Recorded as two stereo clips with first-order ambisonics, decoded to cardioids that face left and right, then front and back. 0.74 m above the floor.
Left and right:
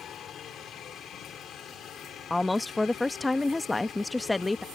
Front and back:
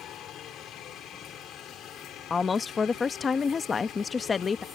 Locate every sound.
0.0 s a helicopter: 40° left
2.3 s a woman speaking: 20° left